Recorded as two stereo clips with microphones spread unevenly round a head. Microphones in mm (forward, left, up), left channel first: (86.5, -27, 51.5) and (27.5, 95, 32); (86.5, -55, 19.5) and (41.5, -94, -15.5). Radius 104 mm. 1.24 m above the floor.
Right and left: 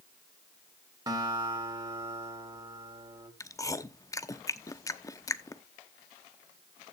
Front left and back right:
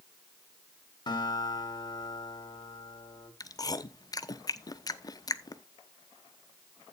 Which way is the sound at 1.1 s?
60° left.